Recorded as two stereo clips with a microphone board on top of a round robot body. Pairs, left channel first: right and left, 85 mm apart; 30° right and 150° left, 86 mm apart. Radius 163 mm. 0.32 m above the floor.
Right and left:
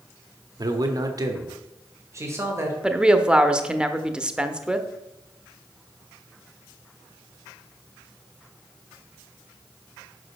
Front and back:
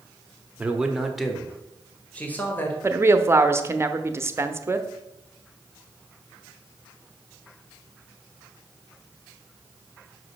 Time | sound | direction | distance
0.6 | a man speaking | 80° left | 1.3 m
2.8 | a woman speaking | 160° left | 0.9 m